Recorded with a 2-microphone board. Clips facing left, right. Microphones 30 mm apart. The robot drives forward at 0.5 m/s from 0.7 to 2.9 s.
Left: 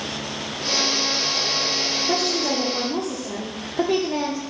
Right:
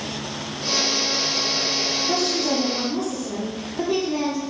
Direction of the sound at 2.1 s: 30° left (ahead or behind).